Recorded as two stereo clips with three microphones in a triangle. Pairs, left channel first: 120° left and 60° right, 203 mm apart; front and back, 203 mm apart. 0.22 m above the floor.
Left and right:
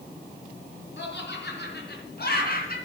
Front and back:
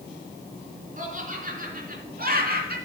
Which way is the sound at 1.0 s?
135° left.